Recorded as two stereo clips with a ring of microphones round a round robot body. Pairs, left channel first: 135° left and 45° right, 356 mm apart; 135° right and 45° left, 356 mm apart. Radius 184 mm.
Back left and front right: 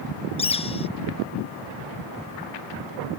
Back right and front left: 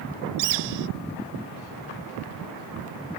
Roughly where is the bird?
Ahead left.